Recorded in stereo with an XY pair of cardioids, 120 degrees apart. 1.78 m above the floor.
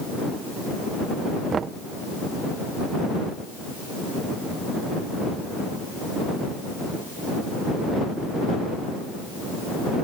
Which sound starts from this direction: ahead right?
Knocking, at 1.5 s.